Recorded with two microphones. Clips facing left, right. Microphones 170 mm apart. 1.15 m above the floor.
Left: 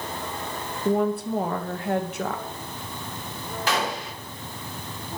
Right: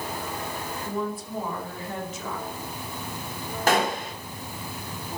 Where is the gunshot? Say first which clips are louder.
Right 4 dB; 50° right (ahead or behind), 1.6 m.